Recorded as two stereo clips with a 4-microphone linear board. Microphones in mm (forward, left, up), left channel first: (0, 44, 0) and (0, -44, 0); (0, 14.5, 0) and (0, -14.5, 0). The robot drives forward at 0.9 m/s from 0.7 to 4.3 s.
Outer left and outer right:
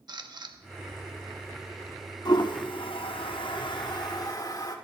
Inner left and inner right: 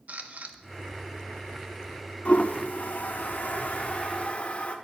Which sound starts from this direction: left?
A toilet flushing, at 2.2 s.